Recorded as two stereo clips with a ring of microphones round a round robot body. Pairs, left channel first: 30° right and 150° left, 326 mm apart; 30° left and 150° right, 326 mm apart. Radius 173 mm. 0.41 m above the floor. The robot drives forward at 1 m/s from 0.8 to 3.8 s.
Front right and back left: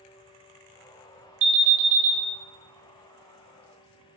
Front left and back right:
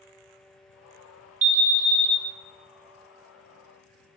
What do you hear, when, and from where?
1.4 s an alarm: 165° left, 2 m; by 2.2 s 170° left, 2.5 m